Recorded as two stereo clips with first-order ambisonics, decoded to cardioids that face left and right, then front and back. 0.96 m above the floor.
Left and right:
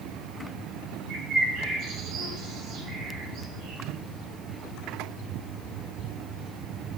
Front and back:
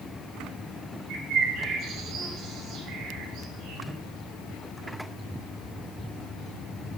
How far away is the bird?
About 6.5 m.